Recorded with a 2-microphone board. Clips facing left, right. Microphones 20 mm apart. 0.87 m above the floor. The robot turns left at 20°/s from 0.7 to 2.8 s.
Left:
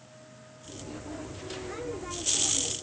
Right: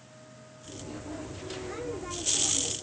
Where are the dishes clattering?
No dishes clattering in this recording.